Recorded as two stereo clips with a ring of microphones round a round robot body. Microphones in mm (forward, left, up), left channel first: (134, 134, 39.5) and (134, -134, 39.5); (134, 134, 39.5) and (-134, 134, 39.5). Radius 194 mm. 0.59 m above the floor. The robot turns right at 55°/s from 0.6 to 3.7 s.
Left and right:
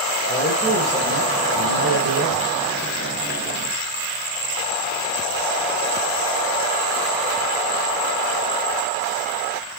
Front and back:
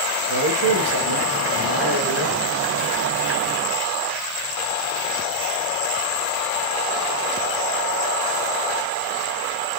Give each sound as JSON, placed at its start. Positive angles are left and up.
{"t": 0.3, "sound": "a man speaking", "azimuth_deg": 165, "distance_m": 2.5}